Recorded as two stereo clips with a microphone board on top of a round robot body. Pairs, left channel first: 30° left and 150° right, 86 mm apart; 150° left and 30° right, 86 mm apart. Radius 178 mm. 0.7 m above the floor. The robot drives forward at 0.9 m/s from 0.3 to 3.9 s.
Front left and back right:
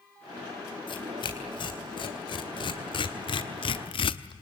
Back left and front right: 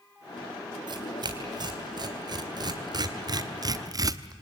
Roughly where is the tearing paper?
Ahead.